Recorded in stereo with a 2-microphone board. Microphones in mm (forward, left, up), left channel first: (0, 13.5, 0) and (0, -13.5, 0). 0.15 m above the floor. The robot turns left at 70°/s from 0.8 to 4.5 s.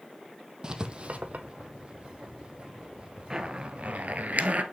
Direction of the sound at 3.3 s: 25° right.